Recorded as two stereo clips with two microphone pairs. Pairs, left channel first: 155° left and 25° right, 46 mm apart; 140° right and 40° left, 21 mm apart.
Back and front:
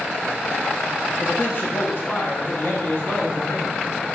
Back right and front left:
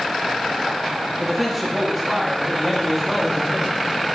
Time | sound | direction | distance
1.2 | a man speaking | 140° left | 0.8 m